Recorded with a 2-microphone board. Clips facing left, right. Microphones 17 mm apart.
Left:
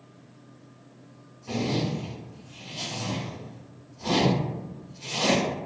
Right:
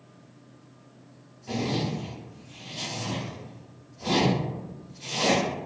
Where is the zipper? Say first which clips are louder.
Left 1 dB; 5° right (ahead or behind), 1.2 m.